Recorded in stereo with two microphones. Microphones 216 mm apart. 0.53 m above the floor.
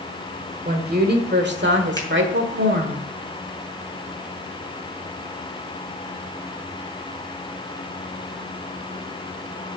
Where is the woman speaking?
45° right (ahead or behind), 1.6 m; by 3.0 s 60° right (ahead or behind), 1.5 m.